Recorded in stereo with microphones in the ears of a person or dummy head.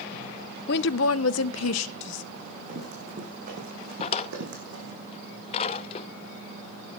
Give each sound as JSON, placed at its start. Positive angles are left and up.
{"t": 0.7, "sound": "a woman speaking", "side_deg": 55, "distance_m": 0.7}
{"t": 2.3, "sound": "running footsteps", "side_deg": -40, "distance_m": 6.0}
{"t": 4.0, "sound": "a drawer", "side_deg": 40, "distance_m": 0.7}